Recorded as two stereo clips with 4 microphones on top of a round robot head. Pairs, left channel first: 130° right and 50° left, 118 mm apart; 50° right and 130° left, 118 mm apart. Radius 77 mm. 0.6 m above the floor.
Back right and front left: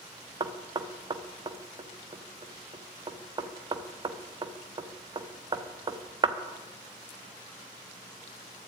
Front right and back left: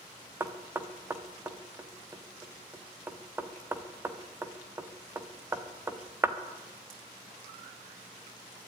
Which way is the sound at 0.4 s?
70° left.